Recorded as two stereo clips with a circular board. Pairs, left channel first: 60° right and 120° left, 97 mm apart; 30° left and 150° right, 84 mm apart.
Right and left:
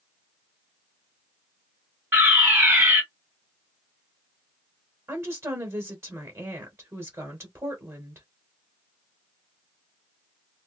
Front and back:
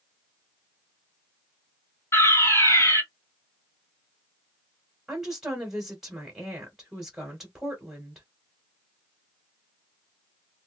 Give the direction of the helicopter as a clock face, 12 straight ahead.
No helicopter in this recording.